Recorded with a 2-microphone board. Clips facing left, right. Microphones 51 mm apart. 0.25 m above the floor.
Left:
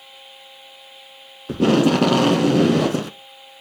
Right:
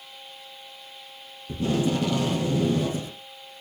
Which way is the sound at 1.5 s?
80° left.